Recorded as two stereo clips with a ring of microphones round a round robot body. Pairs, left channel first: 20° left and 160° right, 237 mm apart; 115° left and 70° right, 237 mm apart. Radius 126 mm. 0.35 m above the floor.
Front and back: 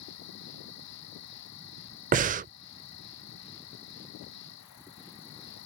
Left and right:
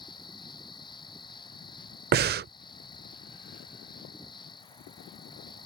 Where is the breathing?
105° right.